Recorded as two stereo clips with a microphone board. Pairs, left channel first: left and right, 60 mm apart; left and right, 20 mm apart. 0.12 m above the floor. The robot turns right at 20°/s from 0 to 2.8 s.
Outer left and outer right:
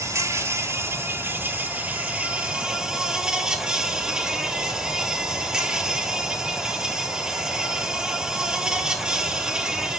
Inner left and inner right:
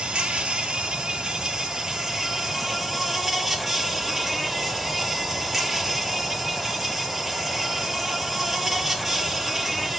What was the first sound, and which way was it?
An insect, 70° right.